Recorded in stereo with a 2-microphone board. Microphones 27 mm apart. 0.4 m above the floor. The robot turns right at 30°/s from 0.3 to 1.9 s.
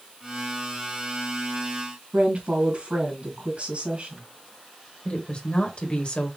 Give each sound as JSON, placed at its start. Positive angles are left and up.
{"t": 2.1, "sound": "a woman speaking", "side_deg": -45, "distance_m": 3.0}
{"t": 5.0, "sound": "a woman speaking", "side_deg": 45, "distance_m": 1.8}